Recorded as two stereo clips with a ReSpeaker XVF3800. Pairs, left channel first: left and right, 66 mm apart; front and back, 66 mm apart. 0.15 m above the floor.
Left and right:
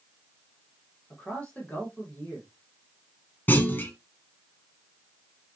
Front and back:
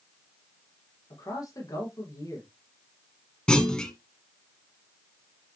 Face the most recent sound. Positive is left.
turn(degrees=65)